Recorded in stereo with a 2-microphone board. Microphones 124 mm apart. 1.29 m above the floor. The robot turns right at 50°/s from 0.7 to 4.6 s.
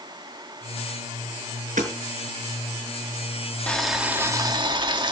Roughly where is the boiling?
Behind.